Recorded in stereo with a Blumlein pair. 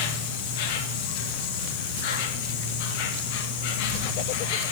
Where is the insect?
50° left, 1.8 m.